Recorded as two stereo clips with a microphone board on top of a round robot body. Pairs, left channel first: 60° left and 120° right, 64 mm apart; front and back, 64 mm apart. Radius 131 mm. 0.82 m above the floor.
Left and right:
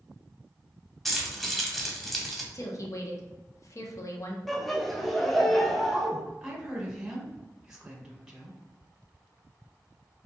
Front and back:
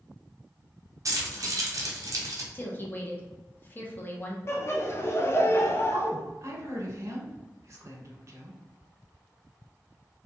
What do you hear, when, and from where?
1.1 s keys jangling: 150° left, 0.7 m
2.5 s a woman speaking: 50° left, 0.7 m
4.5 s laughter: 25° right, 0.7 m
5.9 s a woman speaking: 160° left, 1.0 m